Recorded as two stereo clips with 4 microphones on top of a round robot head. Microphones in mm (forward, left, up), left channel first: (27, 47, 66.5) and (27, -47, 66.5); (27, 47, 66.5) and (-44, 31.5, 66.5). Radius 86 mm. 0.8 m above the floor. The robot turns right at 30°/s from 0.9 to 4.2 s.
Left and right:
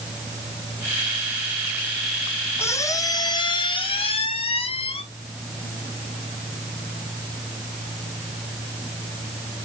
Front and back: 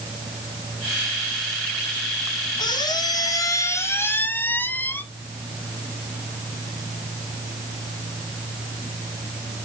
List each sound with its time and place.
2.6 s a squeak: 25° left, 1.3 m; by 5.0 s 75° left, 1.3 m